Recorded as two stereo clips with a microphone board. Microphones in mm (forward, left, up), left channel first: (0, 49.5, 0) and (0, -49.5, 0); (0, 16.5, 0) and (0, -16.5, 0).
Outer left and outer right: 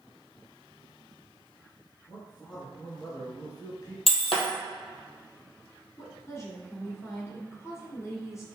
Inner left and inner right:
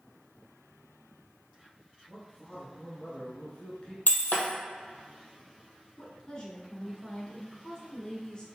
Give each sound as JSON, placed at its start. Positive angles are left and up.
{"t": 2.1, "sound": "a man speaking", "side_deg": 55, "distance_m": 2.0}
{"t": 4.1, "sound": "breaking glass", "side_deg": 80, "distance_m": 1.3}
{"t": 6.0, "sound": "a woman speaking", "side_deg": 30, "distance_m": 1.7}